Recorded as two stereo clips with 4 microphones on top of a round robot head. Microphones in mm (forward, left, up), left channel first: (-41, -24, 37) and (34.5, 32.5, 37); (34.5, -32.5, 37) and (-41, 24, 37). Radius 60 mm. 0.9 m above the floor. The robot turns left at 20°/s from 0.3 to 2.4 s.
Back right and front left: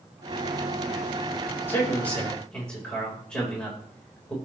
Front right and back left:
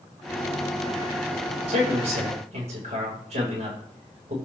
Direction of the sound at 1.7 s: 150° left.